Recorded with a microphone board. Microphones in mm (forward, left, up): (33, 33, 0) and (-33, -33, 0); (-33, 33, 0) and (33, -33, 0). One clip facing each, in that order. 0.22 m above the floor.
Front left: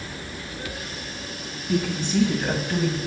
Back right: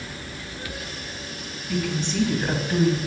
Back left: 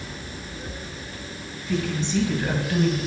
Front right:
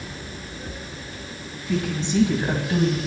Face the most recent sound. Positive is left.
turn(degrees=-85)